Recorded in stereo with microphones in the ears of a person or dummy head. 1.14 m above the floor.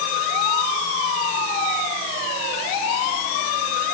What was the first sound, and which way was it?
Only background noise.